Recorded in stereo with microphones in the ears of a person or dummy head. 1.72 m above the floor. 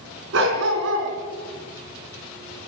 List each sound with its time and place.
0.3 s a dog barking: 70° right (ahead or behind), 4.5 m